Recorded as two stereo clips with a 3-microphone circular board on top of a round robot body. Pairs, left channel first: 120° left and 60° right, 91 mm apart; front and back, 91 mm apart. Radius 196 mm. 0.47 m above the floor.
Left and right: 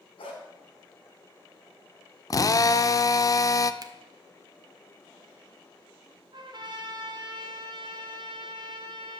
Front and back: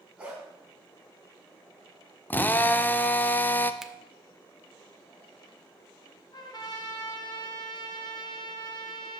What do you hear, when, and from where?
0.2 s a dog barking: 100° left, 2.5 m
2.3 s a drill: 70° left, 0.5 m
3.8 s a finger snap: 95° right, 1.1 m
6.3 s a trumpet: 35° right, 1.8 m